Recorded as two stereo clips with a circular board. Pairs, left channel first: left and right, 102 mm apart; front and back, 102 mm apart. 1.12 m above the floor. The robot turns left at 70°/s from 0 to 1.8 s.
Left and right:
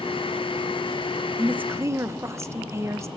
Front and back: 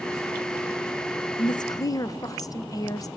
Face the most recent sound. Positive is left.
turn(degrees=-40)